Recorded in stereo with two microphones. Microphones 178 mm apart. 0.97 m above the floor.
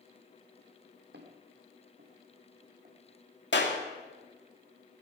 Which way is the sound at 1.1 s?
65° right (ahead or behind).